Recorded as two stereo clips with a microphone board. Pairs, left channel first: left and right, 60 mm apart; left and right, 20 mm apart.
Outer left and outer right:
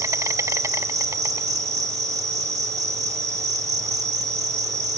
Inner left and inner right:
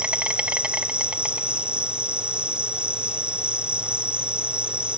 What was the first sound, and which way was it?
An insect, 70° right (ahead or behind).